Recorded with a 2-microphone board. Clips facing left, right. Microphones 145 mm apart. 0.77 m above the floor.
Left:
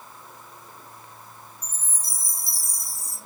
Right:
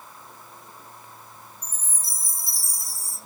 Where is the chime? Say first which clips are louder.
Even; 70° left (ahead or behind), 1.1 m.